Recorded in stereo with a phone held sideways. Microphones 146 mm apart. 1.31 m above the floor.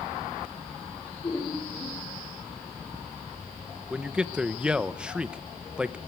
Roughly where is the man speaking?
Centre.